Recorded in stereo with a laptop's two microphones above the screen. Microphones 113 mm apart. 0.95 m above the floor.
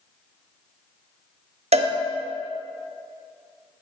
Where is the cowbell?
70° right (ahead or behind), 0.6 m.